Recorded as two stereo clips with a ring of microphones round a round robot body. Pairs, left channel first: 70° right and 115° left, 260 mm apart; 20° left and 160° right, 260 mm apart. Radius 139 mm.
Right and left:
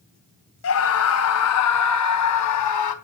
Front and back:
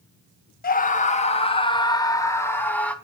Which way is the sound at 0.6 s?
35° right.